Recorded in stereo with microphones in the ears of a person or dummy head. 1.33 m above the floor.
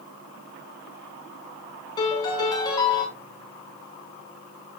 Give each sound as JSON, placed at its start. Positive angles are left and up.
{"t": 2.0, "sound": "a piano", "side_deg": 25, "distance_m": 6.0}